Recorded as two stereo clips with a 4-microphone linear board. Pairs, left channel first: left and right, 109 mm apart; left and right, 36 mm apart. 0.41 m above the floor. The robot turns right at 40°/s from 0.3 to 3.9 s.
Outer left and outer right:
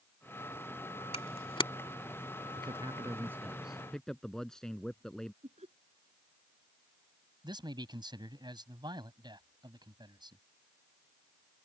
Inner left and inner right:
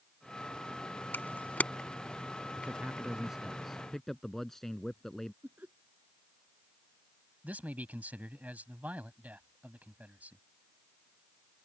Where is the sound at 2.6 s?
50° right; by 5.3 s 5° left.